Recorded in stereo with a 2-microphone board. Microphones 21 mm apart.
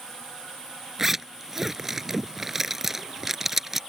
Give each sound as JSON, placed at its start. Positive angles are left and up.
{"t": 1.0, "sound": "a zipper", "side_deg": -15}